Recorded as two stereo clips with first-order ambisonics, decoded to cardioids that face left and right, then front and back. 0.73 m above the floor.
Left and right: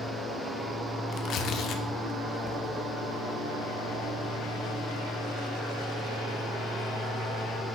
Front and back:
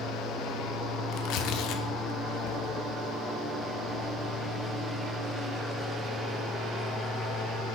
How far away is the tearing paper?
About 0.8 m.